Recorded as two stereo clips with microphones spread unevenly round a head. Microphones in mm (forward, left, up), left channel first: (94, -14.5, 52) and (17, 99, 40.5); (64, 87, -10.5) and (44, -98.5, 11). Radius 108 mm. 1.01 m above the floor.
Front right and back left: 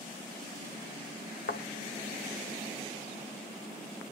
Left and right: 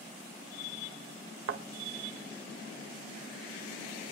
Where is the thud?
95° right, 1.9 m.